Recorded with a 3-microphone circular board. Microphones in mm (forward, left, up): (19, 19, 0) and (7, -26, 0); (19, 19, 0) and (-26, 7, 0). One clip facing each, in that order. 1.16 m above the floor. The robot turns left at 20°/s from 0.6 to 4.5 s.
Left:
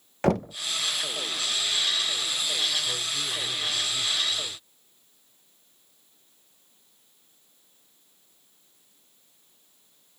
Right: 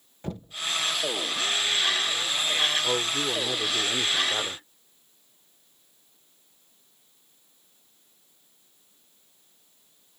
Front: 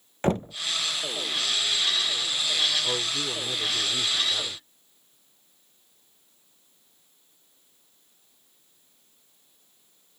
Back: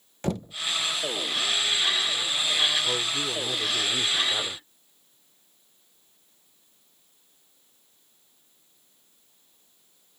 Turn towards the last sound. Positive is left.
turn(degrees=-100)